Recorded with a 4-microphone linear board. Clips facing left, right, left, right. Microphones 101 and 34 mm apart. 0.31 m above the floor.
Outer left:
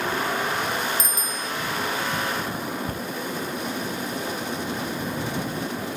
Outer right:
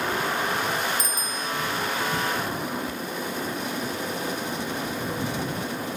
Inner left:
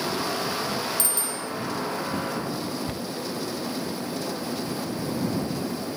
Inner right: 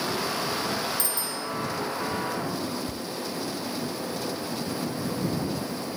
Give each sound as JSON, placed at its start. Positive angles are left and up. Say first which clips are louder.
{"t": 1.0, "sound": "a bicycle bell", "louder": "even, inner left 1 dB", "side_deg": 70}
{"t": 2.9, "sound": "a cupboard door", "louder": "outer left 1 dB, inner left 2 dB", "side_deg": 50}